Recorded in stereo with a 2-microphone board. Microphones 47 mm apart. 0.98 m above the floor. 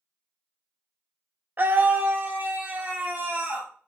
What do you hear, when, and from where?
1.6 s a scream: 45° right (ahead or behind), 0.7 m